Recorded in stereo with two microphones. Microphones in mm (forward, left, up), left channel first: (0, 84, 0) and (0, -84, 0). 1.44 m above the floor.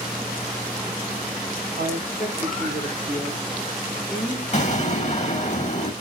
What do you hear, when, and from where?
1.8 s a woman speaking: 60° left (ahead or behind), 5 m; by 4.4 s 80° left, 6 m
4.5 s an explosion: 45° left (ahead or behind), 6.5 m